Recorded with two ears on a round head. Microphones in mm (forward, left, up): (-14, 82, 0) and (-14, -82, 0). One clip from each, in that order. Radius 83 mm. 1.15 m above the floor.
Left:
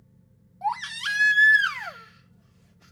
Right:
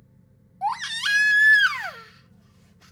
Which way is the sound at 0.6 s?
20° right (ahead or behind).